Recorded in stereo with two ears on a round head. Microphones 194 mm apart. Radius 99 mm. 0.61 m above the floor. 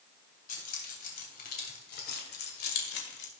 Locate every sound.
0.5 s keys jangling: 40° left (ahead or behind), 3 m; by 3.3 s 50° left (ahead or behind), 1.7 m